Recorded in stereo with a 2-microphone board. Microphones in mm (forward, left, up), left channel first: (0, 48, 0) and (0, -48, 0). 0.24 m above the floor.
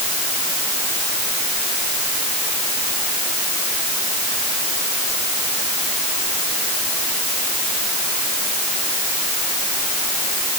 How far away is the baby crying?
No baby crying in this recording.